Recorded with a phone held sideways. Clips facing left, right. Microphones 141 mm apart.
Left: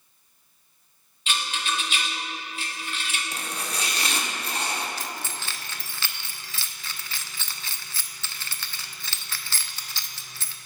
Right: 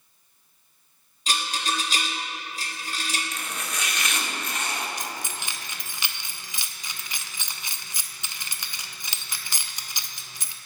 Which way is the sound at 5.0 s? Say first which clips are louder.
Even; 15° right (ahead or behind).